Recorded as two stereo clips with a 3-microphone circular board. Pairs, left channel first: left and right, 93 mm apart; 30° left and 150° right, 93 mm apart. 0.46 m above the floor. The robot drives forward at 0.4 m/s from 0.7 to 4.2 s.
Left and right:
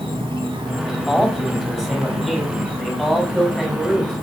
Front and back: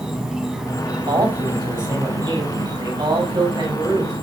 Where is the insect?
65° right, 1.1 m; by 4.2 s 130° right, 1.4 m.